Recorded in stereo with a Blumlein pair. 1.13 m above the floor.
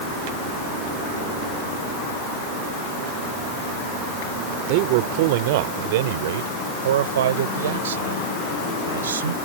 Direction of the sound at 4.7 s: 45° right.